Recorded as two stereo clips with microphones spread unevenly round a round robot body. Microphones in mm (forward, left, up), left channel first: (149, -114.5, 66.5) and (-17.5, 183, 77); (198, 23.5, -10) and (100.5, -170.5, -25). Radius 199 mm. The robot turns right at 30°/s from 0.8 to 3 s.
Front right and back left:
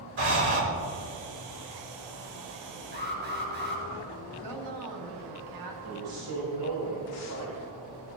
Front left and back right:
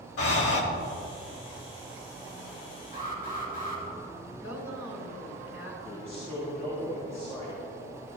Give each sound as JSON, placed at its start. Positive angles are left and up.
{"t": 0.2, "sound": "breathing", "azimuth_deg": 60, "distance_m": 2.0}
{"t": 2.9, "sound": "an alarm", "azimuth_deg": 180, "distance_m": 3.0}
{"t": 4.4, "sound": "a woman speaking", "azimuth_deg": 110, "distance_m": 4.0}
{"t": 5.8, "sound": "a man speaking", "azimuth_deg": 150, "distance_m": 3.0}